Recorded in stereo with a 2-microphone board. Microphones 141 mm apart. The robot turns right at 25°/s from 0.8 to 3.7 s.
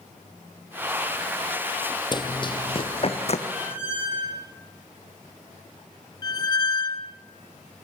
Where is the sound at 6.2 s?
30° left (ahead or behind), 0.9 m.